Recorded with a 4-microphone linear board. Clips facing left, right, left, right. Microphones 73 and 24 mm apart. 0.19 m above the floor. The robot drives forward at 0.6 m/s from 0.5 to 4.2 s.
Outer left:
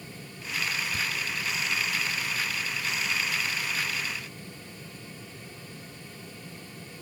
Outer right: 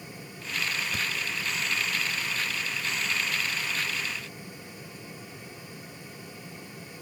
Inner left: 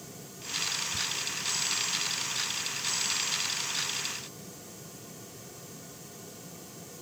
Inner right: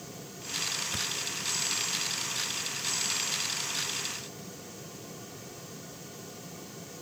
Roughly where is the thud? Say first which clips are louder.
Even, even; right.